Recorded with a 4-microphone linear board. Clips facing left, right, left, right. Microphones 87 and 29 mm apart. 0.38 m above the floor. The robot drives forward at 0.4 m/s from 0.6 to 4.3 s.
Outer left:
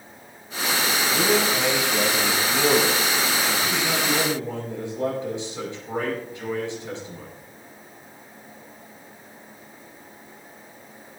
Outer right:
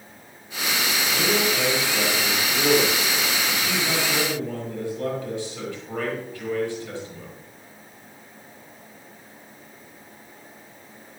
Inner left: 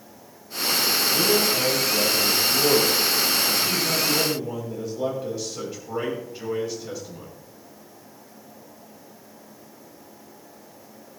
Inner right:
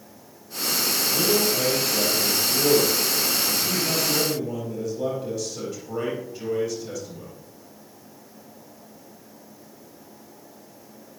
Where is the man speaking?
20° left (ahead or behind), 7.5 m.